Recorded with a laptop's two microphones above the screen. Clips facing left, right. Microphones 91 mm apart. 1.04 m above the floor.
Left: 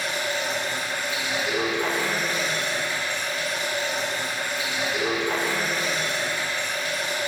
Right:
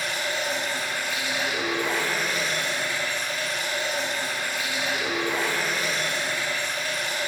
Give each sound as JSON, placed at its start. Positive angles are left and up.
{"t": 0.0, "sound": "running water", "side_deg": 25, "distance_m": 4.0}